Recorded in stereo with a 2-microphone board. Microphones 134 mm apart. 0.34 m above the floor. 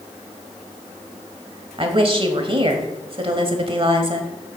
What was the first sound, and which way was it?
A woman speaking, 40° right (ahead or behind).